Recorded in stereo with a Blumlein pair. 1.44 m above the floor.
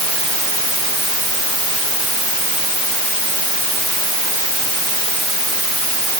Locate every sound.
Only background noise.